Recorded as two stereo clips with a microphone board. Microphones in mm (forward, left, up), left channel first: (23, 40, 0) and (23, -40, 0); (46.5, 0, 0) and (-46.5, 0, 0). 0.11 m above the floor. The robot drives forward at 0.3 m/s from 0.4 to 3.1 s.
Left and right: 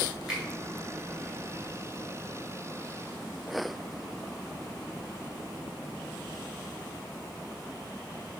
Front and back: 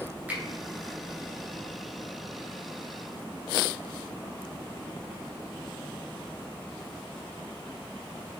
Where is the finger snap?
160° right, 1.4 m.